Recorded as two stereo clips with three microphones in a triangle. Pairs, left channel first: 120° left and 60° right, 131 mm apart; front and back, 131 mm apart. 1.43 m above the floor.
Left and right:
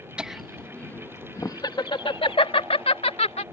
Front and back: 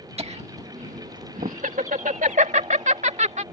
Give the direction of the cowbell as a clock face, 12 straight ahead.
I don't hear a cowbell.